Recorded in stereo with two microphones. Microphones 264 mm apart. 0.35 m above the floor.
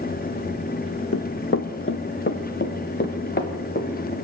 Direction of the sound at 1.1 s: 55° left (ahead or behind).